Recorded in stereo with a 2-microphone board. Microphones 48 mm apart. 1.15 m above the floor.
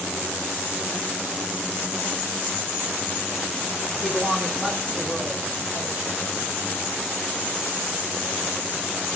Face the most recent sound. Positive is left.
turn(degrees=-35)  # may be behind; listen again after turning